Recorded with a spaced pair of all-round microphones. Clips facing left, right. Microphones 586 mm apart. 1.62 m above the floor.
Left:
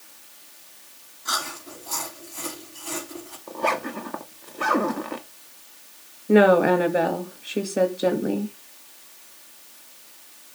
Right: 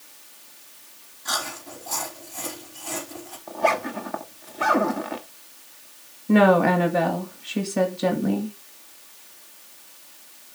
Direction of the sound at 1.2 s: 20° right (ahead or behind).